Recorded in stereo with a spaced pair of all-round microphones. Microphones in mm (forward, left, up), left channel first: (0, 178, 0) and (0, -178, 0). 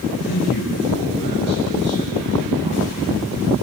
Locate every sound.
0.3 s a man speaking: 75° left (ahead or behind), 6.5 m; by 3.0 s 85° left, 6 m